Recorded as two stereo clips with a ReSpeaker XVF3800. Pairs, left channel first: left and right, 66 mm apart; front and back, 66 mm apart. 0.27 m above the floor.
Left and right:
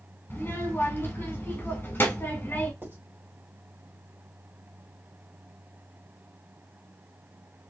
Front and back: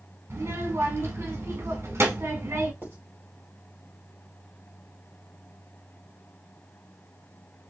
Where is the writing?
135° right, 2.5 m.